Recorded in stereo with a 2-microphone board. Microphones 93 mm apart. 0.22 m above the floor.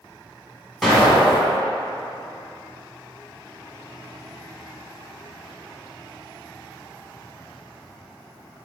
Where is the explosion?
Centre (ahead or behind), 1.3 m.